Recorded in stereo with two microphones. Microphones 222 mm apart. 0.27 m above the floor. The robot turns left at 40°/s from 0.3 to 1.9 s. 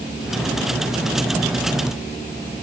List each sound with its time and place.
Only background noise.